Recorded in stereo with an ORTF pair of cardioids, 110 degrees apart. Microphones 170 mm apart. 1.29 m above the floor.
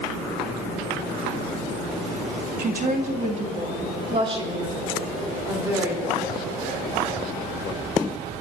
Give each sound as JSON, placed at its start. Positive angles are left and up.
{"t": 2.6, "sound": "a woman speaking", "azimuth_deg": -60, "distance_m": 2.5}